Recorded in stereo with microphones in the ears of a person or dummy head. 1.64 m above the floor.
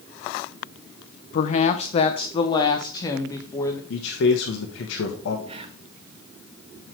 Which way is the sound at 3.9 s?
70° left (ahead or behind).